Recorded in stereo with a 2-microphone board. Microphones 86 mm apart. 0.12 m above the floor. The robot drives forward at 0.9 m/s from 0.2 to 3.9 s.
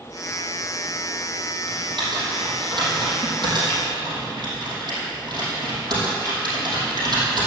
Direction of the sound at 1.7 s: 70° right (ahead or behind).